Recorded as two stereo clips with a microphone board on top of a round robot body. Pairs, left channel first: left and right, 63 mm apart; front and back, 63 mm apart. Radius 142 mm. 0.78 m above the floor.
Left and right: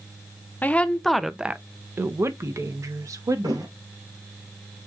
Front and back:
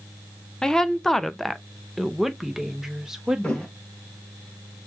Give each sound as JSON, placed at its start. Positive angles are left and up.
{"t": 0.6, "sound": "a woman speaking", "azimuth_deg": 70, "distance_m": 0.7}
{"t": 3.4, "sound": "a thud", "azimuth_deg": -75, "distance_m": 2.0}